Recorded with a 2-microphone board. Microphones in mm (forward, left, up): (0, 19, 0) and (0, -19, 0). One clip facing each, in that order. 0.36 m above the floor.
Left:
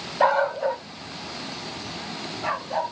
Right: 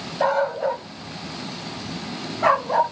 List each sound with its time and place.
0.2 s a dog barking: 15° left (ahead or behind), 0.8 m; by 2.9 s 80° right, 1.6 m